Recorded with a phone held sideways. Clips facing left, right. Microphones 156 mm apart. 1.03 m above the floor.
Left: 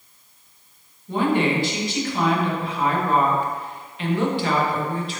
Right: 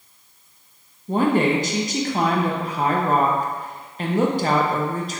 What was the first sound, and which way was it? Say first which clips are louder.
A woman speaking: right 2 dB; 45° right (ahead or behind).